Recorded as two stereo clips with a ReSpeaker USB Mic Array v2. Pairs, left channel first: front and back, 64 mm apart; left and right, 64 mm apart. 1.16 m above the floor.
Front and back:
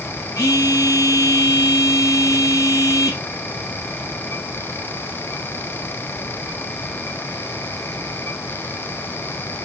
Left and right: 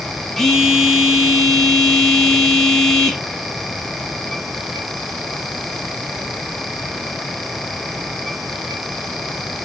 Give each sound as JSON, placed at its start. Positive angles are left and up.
{"t": 0.4, "sound": "a phone buzzing", "azimuth_deg": 5, "distance_m": 1.6}